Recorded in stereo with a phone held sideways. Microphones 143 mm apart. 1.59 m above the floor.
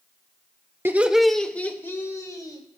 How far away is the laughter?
About 0.8 m.